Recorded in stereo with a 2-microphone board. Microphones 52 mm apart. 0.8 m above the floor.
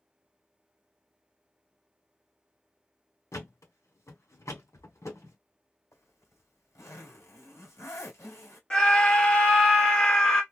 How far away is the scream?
About 1.2 m.